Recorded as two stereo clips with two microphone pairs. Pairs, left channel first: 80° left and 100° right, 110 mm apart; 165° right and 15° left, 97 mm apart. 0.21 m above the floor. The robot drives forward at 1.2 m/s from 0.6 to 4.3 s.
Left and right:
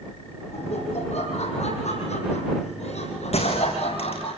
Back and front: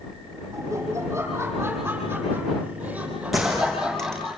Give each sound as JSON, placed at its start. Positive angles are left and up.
{"t": 0.5, "sound": "laughter", "azimuth_deg": 70, "distance_m": 9.0}
{"t": 3.3, "sound": "a gunshot", "azimuth_deg": 100, "distance_m": 7.0}